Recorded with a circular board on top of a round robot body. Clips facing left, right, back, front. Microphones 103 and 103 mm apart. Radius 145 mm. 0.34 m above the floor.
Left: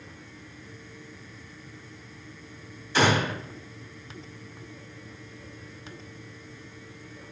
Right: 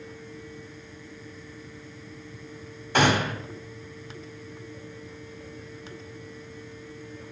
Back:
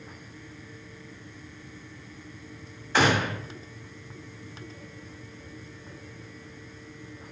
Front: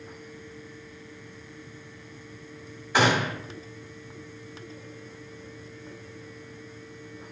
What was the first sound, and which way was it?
A gunshot, 75° right.